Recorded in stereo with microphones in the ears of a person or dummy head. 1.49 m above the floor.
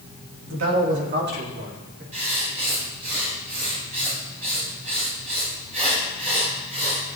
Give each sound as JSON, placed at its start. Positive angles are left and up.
{"t": 0.5, "sound": "a man speaking", "side_deg": -65, "distance_m": 2.5}
{"t": 2.1, "sound": "writing", "side_deg": -40, "distance_m": 5.5}